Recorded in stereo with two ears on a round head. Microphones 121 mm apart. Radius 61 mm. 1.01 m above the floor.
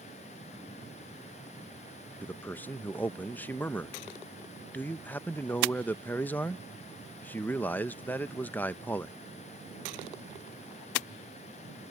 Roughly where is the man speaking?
Centre.